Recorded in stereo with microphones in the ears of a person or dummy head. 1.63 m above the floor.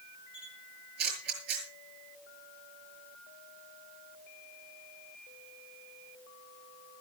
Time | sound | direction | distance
0.3 | a camera shutter | 60° right (ahead or behind) | 7.5 m